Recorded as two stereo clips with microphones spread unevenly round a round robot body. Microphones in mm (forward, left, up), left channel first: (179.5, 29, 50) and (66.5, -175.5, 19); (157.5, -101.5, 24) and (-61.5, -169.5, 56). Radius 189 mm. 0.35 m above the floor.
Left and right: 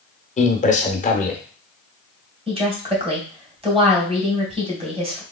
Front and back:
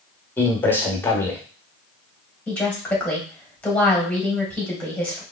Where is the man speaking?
60° left, 0.8 m.